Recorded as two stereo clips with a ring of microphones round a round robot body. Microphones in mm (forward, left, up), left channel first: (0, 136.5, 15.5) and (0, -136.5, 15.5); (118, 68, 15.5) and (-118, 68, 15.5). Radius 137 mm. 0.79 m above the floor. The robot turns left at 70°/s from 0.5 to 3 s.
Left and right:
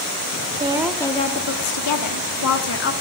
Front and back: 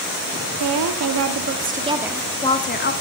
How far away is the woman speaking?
About 1.3 m.